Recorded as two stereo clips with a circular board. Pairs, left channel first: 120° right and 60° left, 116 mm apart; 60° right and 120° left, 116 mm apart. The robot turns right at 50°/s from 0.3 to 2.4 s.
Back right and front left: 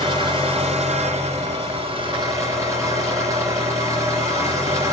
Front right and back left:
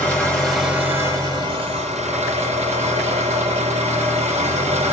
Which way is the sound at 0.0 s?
20° left.